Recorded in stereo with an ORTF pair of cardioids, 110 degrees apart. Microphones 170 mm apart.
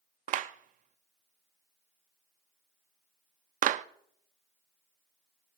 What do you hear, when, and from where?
0.3 s a clap: 50° right, 0.5 m